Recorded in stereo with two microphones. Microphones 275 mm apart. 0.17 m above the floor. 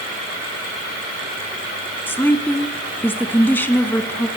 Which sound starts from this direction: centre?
A woman speaking, at 2.1 s.